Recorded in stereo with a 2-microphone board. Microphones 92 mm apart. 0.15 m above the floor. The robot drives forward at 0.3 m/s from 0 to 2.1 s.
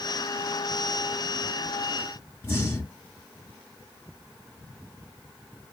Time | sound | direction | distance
2.4 | breathing | 30° left (ahead or behind) | 1.0 m